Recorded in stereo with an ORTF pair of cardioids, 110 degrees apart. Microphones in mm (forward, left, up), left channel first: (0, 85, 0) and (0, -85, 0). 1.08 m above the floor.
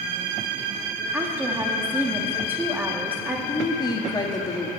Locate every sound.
1.1 s a woman speaking: 10° right, 2 m
3.5 s a woman speaking: 25° left, 1.7 m